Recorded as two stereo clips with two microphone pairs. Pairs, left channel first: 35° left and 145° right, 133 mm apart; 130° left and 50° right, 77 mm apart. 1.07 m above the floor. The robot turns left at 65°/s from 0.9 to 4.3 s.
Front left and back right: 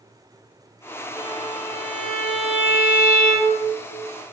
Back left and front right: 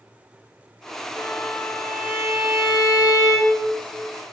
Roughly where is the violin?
Left.